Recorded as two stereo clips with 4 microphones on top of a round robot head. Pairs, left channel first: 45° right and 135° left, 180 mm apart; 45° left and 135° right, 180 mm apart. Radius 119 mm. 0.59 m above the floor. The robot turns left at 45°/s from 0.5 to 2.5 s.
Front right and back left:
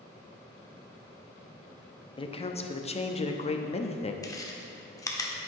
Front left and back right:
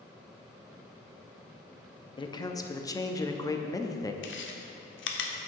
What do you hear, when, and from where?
2.2 s a man speaking: straight ahead, 0.7 m; by 4.1 s 15° right, 0.7 m
4.2 s chewing: 30° left, 0.9 m